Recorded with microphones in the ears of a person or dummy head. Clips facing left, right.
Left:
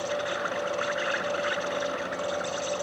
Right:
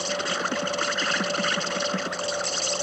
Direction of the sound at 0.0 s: 50° right (ahead or behind).